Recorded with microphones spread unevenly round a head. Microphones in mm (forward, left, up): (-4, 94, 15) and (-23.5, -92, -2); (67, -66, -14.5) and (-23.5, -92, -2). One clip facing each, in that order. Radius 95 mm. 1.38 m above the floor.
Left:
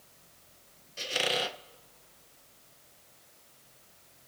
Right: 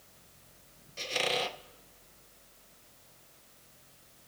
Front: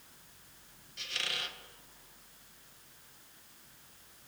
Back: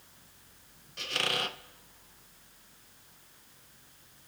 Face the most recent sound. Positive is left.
turn(degrees=165)